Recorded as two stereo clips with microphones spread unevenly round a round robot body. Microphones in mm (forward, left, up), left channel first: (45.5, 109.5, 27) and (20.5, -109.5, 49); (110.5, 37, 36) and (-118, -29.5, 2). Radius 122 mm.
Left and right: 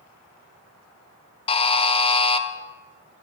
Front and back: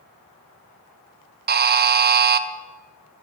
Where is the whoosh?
No whoosh in this recording.